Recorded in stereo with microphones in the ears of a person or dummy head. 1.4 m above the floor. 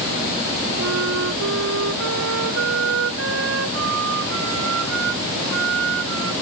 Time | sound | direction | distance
0.8 | a flute | 75° right (ahead or behind) | ?